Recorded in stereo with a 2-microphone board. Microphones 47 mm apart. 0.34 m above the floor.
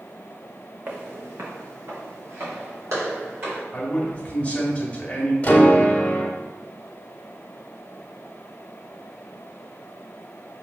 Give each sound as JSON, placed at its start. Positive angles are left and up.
{"t": 0.9, "sound": "footsteps", "side_deg": -40, "distance_m": 1.2}
{"t": 3.7, "sound": "a man speaking", "side_deg": 25, "distance_m": 1.5}
{"t": 5.4, "sound": "a piano", "side_deg": 30, "distance_m": 0.9}